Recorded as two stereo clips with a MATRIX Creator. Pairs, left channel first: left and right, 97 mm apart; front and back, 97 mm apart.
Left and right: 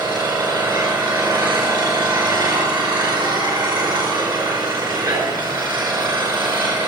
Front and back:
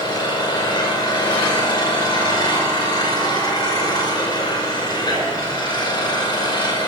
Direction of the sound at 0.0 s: 50° right.